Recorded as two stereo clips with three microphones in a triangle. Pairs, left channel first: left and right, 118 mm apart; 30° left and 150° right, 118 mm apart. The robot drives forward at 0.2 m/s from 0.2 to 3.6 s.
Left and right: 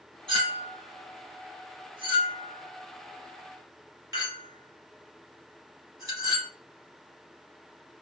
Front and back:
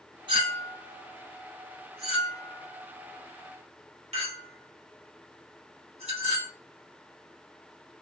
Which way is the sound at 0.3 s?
120° right.